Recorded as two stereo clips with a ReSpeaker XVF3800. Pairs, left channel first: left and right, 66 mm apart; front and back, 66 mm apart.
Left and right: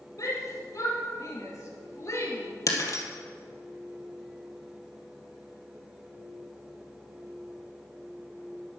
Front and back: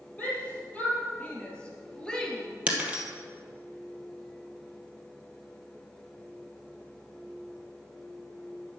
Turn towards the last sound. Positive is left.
turn(degrees=110)